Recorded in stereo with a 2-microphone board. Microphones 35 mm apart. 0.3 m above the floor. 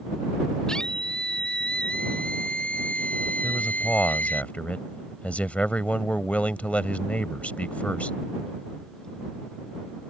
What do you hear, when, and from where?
0.7 s a scream: 15° left (ahead or behind); by 4.4 s 50° left (ahead or behind)
3.4 s a man speaking: 40° left (ahead or behind)